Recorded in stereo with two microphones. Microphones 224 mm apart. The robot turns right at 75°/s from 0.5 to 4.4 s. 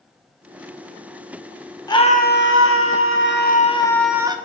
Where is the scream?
15° left, 1.0 m; by 4.4 s 160° right, 1.0 m.